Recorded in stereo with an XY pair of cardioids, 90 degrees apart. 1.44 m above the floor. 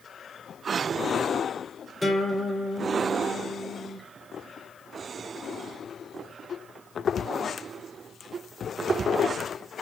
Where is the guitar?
10° left, 3 m.